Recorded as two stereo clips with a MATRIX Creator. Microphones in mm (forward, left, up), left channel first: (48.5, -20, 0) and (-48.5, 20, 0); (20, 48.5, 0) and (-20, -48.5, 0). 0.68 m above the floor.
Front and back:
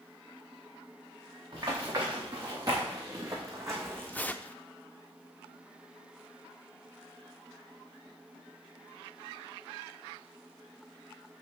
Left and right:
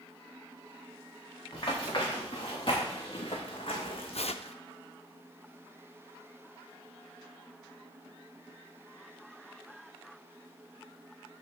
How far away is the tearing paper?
About 0.5 m.